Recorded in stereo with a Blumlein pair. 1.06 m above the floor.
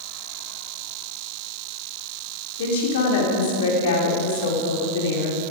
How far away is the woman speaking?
About 2.5 m.